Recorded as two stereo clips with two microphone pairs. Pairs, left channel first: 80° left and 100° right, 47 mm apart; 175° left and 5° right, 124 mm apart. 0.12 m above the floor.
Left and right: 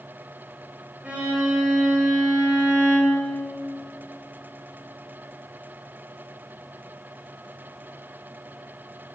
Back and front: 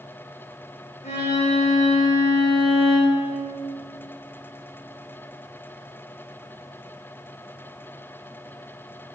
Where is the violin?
160° right, 5.5 m.